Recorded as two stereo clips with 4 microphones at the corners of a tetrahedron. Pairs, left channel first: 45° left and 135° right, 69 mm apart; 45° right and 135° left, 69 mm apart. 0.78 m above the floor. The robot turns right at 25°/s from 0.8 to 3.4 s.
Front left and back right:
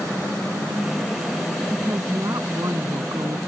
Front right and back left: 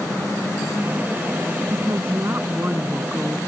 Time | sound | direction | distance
1.7 | a woman speaking | 170° left | ?